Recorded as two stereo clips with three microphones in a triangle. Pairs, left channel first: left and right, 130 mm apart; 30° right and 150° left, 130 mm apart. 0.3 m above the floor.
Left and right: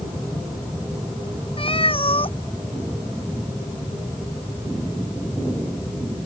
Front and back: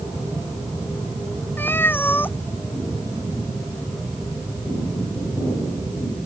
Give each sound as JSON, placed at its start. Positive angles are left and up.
{"t": 1.6, "sound": "a cat meowing", "azimuth_deg": 45}